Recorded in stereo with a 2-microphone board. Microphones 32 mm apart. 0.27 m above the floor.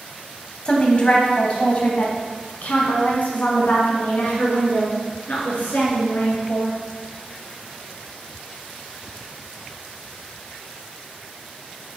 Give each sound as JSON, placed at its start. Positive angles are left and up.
{"t": 0.7, "sound": "a woman speaking", "side_deg": 35, "distance_m": 1.8}